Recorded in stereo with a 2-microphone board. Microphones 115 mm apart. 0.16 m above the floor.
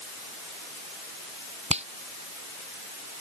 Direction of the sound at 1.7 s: 70° right (ahead or behind).